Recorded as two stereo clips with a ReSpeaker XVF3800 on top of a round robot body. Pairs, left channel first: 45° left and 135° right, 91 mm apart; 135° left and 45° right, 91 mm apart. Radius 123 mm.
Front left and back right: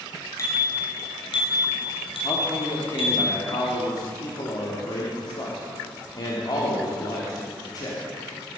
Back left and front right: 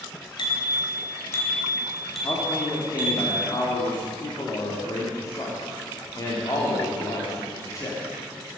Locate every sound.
0.4 s a bicycle bell: 100° left, 3 m; by 3.2 s 25° left, 4 m
2.2 s a man speaking: 85° left, 2.5 m